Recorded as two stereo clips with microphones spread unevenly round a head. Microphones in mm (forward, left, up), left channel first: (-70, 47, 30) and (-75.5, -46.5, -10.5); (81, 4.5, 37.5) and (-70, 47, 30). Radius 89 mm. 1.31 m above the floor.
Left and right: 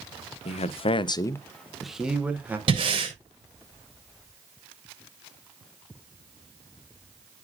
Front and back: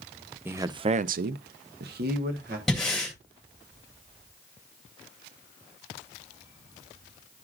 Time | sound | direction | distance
0.5 | a man speaking | 90° left | 0.6 m
2.7 | breathing | 105° right | 2.5 m